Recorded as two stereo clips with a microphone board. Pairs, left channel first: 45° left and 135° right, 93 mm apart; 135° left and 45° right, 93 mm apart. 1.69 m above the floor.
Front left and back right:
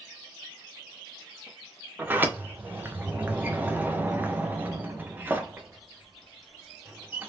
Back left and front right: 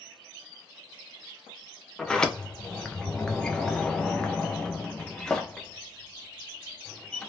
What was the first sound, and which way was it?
A sliding door, 155° right.